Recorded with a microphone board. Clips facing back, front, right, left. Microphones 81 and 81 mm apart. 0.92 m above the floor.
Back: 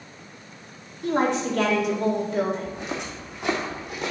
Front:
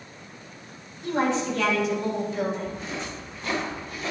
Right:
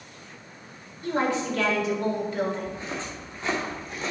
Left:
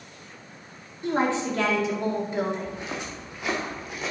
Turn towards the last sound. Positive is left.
turn(degrees=175)